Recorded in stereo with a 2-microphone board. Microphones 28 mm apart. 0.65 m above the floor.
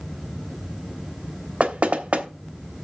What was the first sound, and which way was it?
Knocking, 55° right (ahead or behind).